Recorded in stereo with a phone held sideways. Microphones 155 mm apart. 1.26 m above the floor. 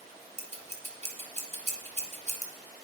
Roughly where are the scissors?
Right.